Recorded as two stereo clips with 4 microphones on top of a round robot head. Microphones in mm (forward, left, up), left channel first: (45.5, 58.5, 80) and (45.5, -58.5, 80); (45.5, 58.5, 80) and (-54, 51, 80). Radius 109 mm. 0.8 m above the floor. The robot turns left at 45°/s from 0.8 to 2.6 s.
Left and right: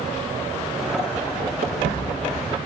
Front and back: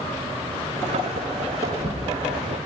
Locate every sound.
1.6 s footsteps: 105° right, 4.5 m; by 2.5 s 150° right, 4.5 m